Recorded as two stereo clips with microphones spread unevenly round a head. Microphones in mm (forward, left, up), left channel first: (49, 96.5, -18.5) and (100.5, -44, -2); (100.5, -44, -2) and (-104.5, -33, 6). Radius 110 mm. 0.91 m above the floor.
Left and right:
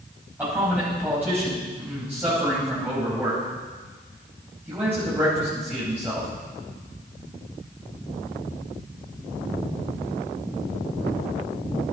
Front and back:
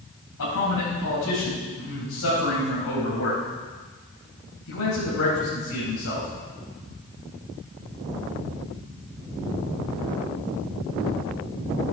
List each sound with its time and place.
0.4 s a man speaking: 5° left, 4.5 m